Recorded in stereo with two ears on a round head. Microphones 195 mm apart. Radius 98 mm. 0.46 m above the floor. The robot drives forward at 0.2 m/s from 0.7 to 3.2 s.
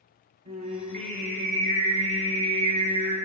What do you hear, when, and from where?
0.5 s singing: 30° right (ahead or behind), 1.4 m; by 3.2 s 35° right (ahead or behind), 1.2 m